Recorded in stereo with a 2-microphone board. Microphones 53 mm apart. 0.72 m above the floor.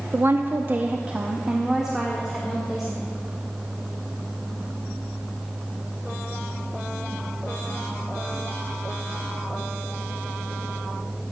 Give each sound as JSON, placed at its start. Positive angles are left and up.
{"t": 0.1, "sound": "a woman speaking", "side_deg": -40, "distance_m": 0.7}